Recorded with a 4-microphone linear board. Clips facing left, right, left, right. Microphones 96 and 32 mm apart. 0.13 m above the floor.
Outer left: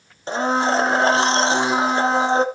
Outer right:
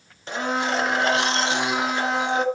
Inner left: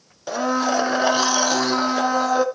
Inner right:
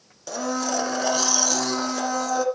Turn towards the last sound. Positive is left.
turn(degrees=30)  # may be behind; listen again after turning